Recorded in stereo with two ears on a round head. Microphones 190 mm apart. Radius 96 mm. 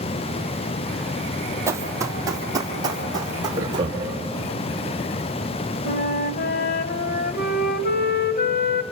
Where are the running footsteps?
15° right (ahead or behind), 2.5 m; by 3.9 s 20° right (ahead or behind), 4.5 m.